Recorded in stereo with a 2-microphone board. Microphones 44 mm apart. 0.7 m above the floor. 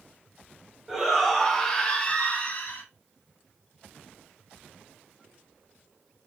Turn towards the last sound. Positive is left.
turn(degrees=40)  # may be behind; listen again after turning